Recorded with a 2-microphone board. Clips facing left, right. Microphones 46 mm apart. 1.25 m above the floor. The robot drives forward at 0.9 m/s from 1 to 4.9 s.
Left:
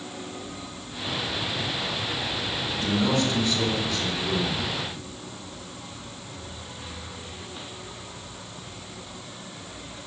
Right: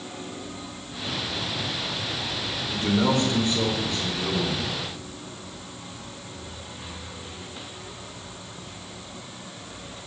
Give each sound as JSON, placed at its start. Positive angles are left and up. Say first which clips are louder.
{"t": 2.7, "sound": "a man speaking", "louder": "right 2 dB", "side_deg": -40, "distance_m": 3.5}